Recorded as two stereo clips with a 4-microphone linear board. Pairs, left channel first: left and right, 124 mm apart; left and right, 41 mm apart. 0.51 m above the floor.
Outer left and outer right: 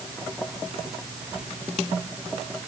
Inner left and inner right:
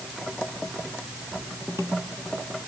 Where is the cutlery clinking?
I don't hear cutlery clinking.